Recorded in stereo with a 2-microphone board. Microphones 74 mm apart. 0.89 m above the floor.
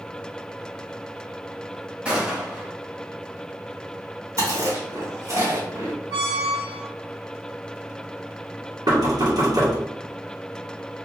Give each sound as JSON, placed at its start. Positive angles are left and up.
{"t": 2.0, "sound": "a gunshot", "side_deg": -15, "distance_m": 1.1}
{"t": 4.4, "sound": "chewing", "side_deg": -50, "distance_m": 1.6}
{"t": 6.1, "sound": "a squeak", "side_deg": -60, "distance_m": 1.0}
{"t": 8.9, "sound": "knocking", "side_deg": -65, "distance_m": 1.6}